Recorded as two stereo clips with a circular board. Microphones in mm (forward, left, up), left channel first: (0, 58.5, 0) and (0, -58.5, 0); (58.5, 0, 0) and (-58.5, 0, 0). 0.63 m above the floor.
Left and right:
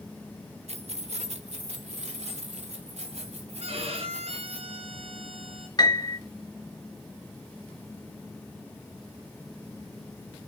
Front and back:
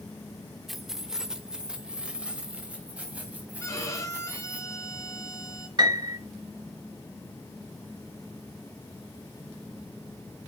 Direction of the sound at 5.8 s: 135° left.